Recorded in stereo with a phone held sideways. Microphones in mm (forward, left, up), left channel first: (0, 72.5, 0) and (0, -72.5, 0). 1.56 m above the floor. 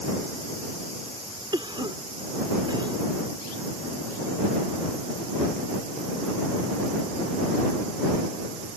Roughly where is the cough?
Right.